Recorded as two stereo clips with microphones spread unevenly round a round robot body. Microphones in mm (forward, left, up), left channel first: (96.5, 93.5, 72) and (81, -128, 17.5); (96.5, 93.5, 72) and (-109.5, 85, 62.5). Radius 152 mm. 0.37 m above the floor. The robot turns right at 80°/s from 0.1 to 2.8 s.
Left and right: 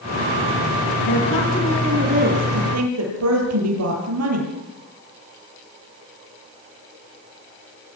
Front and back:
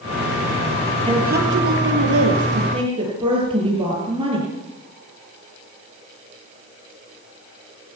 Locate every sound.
1.1 s a woman speaking: 115° left, 8 m; by 4.5 s 105° right, 8 m